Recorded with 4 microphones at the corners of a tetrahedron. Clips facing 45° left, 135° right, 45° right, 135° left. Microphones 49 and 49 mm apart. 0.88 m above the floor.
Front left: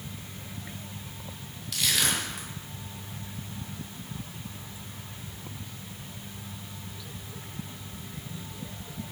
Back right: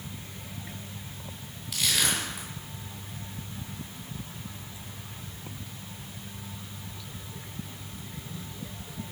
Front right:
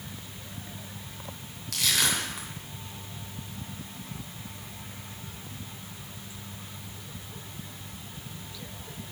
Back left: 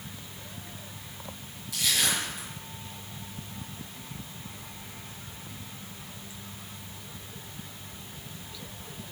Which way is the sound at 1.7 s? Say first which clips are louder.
Even, front right 1 dB; 50° right.